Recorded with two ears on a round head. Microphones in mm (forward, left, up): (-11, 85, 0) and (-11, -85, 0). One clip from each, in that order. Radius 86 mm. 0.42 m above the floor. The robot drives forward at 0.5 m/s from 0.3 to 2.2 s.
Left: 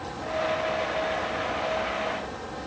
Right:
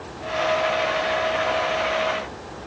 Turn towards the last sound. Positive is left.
No sound to turn to.